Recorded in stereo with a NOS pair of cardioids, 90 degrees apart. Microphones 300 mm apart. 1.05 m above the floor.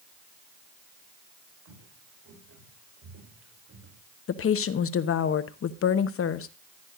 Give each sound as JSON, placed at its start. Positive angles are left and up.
{"t": 1.6, "sound": "footsteps", "azimuth_deg": -65, "distance_m": 7.0}
{"t": 4.3, "sound": "a woman speaking", "azimuth_deg": 50, "distance_m": 0.9}